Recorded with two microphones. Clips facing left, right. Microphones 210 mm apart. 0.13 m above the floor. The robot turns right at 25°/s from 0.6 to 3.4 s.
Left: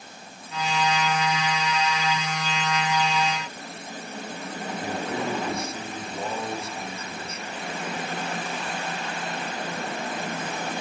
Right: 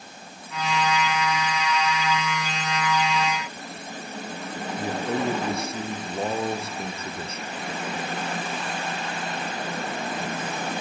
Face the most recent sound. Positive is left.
turn(degrees=-35)  # may be behind; listen again after turning